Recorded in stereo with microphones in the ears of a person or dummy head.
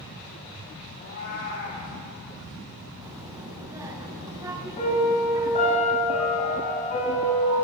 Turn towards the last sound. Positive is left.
turn(degrees=40)  # may be behind; listen again after turning